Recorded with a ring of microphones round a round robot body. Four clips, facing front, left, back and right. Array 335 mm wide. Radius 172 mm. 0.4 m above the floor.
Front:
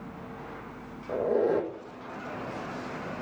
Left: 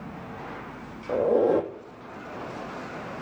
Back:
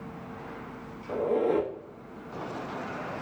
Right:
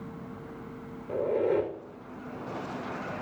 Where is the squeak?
80° left, 1.3 m.